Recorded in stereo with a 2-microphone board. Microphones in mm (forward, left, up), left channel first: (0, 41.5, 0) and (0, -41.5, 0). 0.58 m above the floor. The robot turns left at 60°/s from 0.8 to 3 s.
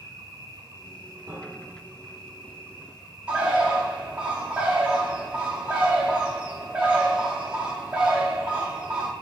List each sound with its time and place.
0.0 s an insect: 45° right, 2 m; by 9.2 s straight behind, 2 m
1.3 s a piano: 100° right, 1.0 m; by 1.9 s 135° right, 1.0 m
3.3 s a bird: 15° right (ahead or behind), 0.9 m